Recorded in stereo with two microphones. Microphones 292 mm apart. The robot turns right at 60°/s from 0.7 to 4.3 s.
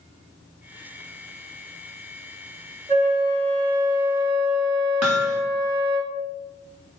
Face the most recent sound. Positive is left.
turn(degrees=-60)  # may be behind; listen again after turning